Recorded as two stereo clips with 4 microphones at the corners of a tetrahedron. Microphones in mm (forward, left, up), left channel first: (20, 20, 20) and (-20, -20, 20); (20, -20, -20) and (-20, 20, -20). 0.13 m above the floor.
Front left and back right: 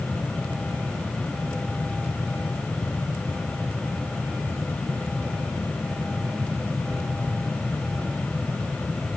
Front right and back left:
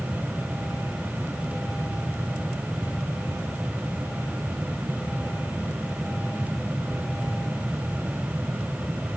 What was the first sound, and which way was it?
Only background noise.